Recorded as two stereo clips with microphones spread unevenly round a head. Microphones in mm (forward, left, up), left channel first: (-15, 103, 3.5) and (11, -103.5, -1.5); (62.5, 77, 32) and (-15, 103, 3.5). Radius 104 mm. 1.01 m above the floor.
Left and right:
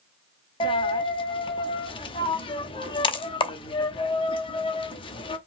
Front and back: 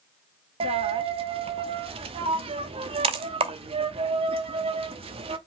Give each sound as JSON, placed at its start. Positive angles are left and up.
{"t": 0.6, "sound": "a dropped coin", "azimuth_deg": 160, "distance_m": 0.7}